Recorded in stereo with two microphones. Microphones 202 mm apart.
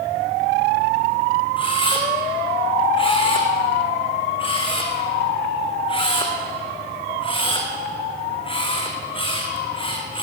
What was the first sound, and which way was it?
A camera shutter, 25° left (ahead or behind).